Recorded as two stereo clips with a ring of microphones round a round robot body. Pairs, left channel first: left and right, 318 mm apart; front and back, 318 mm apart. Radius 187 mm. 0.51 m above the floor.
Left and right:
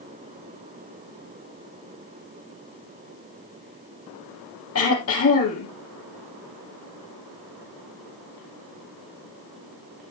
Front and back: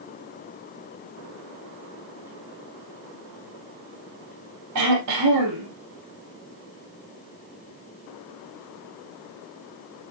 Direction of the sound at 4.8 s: 135° left.